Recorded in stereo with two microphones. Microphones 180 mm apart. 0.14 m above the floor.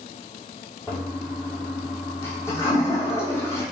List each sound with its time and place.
0.9 s a toilet flushing: 15° left (ahead or behind), 1.6 m